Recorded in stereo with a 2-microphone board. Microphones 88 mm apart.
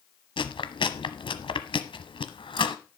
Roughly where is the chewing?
Left.